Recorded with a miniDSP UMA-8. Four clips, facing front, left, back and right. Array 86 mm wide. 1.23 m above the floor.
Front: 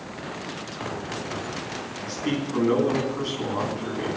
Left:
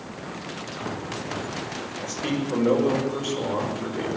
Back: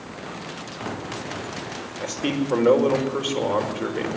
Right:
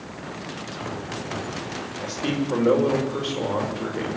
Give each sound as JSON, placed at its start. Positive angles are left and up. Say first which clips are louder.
{"t": 2.0, "sound": "a man speaking", "louder": "right 2 dB, back 3 dB", "azimuth_deg": -170, "distance_m": 5.5}